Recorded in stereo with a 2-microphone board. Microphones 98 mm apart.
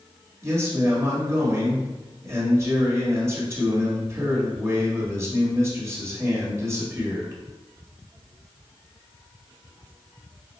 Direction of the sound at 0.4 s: 25° right (ahead or behind).